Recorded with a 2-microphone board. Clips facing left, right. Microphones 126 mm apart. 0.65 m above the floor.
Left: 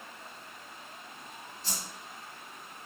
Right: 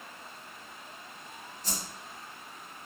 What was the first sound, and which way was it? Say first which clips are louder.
A whoosh: right 3 dB; 40° right (ahead or behind).